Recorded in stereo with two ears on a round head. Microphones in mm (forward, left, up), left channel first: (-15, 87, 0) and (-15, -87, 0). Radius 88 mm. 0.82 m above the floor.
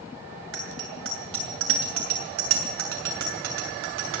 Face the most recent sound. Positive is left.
turn(degrees=-75)  # may be behind; listen again after turning